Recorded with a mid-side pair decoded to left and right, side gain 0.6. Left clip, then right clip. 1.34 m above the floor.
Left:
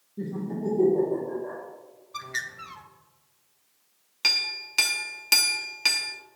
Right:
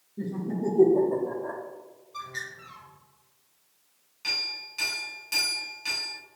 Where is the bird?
50° left, 0.6 m.